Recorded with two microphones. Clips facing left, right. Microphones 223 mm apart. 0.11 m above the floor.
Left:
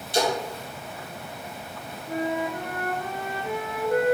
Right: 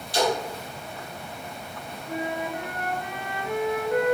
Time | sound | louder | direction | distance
0.1 | a splash | even | 25° left (ahead or behind) | 1.5 m
2.1 | a flute | left 3 dB | 35° left (ahead or behind) | 0.7 m